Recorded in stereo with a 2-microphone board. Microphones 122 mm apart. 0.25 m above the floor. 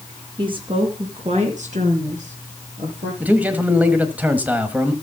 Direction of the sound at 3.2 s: 15° right (ahead or behind).